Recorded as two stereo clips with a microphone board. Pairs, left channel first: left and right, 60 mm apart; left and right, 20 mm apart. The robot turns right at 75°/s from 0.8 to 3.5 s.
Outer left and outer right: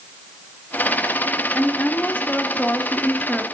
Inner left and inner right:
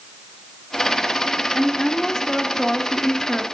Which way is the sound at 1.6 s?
15° left (ahead or behind).